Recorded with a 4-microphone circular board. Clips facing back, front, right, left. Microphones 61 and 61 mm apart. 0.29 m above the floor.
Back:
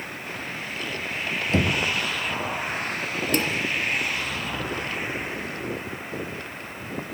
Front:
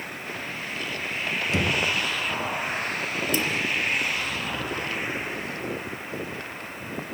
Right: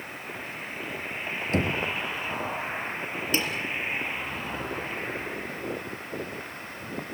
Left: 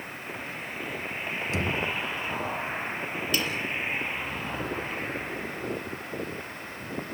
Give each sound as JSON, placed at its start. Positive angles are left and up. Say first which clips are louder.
{"t": 1.5, "sound": "knocking", "louder": "back 3 dB, right 4 dB", "azimuth_deg": -130, "distance_m": 3.0}
{"t": 3.3, "sound": "dishes clattering", "louder": "back 3 dB, right 2 dB", "azimuth_deg": -150, "distance_m": 4.0}